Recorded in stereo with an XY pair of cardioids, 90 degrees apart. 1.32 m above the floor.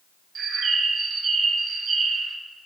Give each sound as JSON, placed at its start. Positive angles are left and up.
{"t": 0.3, "sound": "a bird", "azimuth_deg": -55, "distance_m": 0.6}